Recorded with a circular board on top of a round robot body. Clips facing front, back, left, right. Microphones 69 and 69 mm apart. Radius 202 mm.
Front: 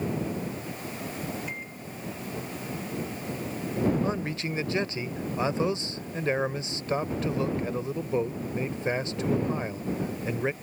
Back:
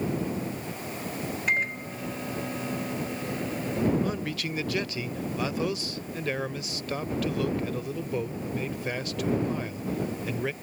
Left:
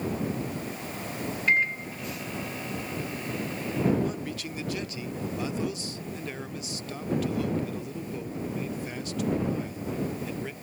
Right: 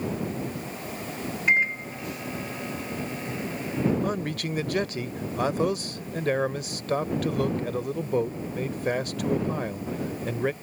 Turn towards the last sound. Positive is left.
turn(degrees=-60)